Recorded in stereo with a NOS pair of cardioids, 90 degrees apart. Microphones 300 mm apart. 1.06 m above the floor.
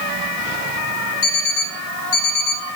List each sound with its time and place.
1.2 s an alarm clock: 40° left, 5 m